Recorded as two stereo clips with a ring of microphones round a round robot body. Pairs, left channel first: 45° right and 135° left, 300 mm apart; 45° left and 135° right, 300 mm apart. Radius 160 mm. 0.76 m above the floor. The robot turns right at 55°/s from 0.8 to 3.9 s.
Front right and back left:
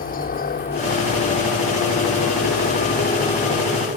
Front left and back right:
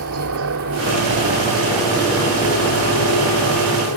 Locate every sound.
0.0 s a helicopter: 105° right; by 4.0 s 70° left